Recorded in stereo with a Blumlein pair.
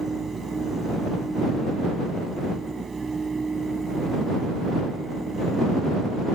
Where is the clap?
No clap in this recording.